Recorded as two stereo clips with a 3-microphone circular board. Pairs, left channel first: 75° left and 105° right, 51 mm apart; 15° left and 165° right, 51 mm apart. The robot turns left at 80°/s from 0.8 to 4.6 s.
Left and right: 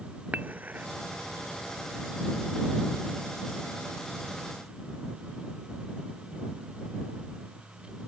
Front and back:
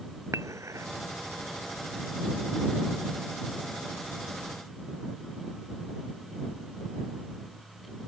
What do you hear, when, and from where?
0.3 s dishes clattering: 160° right; by 0.9 s 165° right